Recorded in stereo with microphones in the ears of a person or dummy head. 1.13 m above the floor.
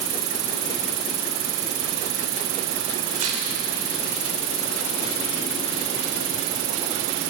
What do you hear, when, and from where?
0.0 s an insect: 70° right (ahead or behind), 0.8 m
3.1 s tearing paper: 40° right (ahead or behind), 3 m